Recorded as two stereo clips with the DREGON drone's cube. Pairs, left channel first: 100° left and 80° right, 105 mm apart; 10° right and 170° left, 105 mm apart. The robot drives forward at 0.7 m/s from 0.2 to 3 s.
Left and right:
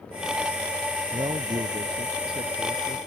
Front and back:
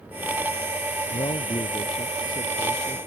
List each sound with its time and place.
1.1 s a man speaking: 40° right; by 3.0 s 45° right